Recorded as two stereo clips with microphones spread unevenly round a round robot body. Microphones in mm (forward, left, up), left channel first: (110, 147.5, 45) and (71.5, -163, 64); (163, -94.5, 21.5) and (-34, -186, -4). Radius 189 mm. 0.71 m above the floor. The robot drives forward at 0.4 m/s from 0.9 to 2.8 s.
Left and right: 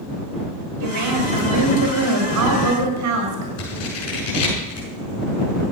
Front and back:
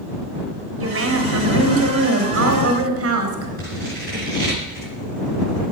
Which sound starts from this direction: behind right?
A woman speaking, at 0.8 s.